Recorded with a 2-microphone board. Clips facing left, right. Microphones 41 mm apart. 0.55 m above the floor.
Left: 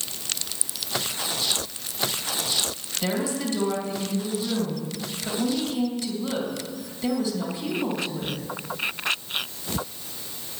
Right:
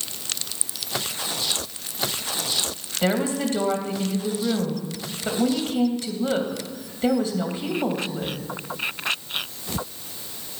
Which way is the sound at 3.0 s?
35° right (ahead or behind).